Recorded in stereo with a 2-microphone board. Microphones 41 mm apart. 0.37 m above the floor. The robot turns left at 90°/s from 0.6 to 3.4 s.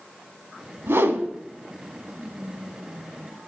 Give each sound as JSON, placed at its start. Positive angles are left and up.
{"t": 0.9, "sound": "a whoosh", "azimuth_deg": -75, "distance_m": 0.9}
{"t": 2.2, "sound": "whispering", "azimuth_deg": 150, "distance_m": 4.5}